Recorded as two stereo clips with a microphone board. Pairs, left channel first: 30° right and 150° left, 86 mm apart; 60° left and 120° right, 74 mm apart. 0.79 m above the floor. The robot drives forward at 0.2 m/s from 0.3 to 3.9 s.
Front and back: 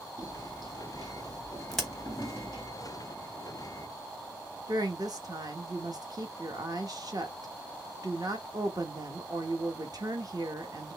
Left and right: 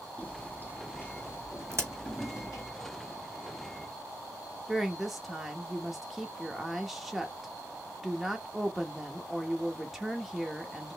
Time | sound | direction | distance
0.2 | footsteps | 130° left | 1.8 m
1.7 | a crack | 115° right | 1.3 m
4.7 | a woman speaking | 155° left | 0.8 m